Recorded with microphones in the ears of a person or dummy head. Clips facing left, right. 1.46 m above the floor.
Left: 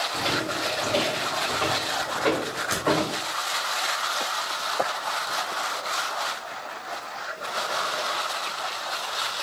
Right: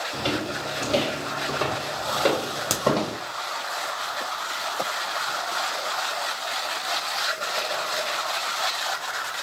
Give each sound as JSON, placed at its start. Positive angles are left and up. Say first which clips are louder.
{"t": 0.1, "sound": "footsteps", "louder": "right 3 dB", "side_deg": -40, "distance_m": 3.0}
{"t": 2.7, "sound": "a crack", "louder": "right 1 dB", "side_deg": -70, "distance_m": 1.1}